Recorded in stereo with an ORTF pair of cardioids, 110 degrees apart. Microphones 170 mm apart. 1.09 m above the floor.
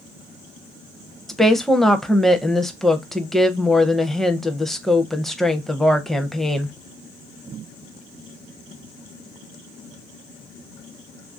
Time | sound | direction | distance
1.3 | a woman speaking | straight ahead | 0.5 m